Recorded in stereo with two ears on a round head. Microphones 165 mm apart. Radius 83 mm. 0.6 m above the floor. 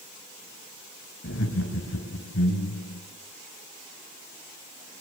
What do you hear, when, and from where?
1.2 s laughter: 75° left (ahead or behind), 4.5 m